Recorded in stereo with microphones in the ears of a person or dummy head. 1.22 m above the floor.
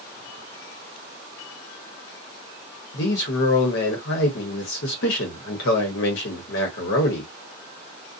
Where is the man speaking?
65° left (ahead or behind), 1.0 m.